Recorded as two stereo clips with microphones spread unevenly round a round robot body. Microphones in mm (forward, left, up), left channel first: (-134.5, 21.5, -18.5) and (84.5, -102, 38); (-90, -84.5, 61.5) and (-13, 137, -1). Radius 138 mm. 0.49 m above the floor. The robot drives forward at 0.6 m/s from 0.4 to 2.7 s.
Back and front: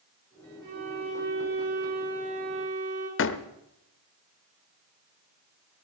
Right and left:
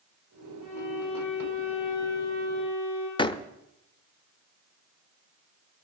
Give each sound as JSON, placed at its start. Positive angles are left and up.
{"t": 0.6, "sound": "a violin", "azimuth_deg": -80, "distance_m": 8.5}
{"t": 3.2, "sound": "a door slam", "azimuth_deg": 175, "distance_m": 0.9}